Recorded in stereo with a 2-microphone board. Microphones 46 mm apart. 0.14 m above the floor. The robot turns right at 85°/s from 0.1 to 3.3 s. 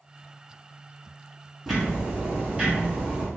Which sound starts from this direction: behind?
Ticking, at 1.7 s.